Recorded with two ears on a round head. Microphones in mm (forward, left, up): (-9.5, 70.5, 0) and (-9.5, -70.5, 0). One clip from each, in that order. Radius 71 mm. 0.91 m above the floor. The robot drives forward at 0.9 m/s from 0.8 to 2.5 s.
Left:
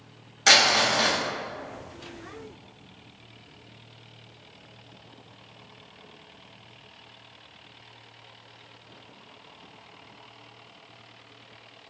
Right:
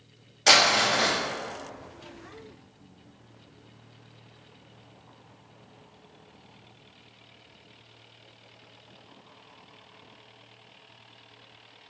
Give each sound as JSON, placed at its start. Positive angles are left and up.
{"t": 0.5, "sound": "crumpling", "side_deg": 0, "distance_m": 1.5}